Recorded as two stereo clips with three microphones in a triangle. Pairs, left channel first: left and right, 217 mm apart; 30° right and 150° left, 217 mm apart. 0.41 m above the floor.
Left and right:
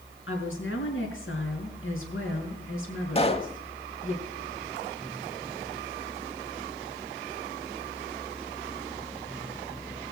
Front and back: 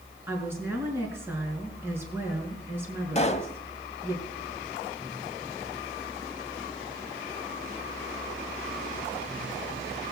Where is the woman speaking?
70° left, 5 m.